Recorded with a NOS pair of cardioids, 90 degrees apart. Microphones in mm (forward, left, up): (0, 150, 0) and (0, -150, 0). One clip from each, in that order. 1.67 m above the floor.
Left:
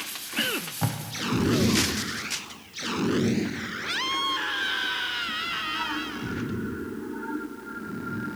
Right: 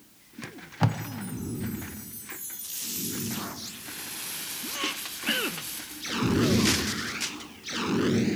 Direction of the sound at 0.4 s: 20° right.